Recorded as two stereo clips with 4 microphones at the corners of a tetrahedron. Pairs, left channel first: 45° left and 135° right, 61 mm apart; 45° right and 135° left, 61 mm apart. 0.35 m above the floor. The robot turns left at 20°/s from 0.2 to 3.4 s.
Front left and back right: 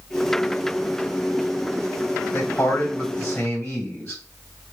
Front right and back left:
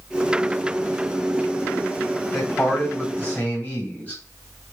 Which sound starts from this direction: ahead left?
A man speaking, at 2.3 s.